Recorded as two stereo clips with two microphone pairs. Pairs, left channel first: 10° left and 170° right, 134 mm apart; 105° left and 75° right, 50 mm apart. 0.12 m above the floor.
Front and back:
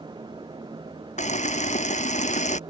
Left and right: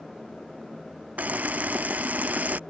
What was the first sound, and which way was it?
A camera shutter, 15° right.